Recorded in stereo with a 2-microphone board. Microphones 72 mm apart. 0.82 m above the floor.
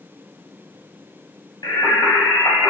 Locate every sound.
1.6 s singing: 60° left (ahead or behind), 4 m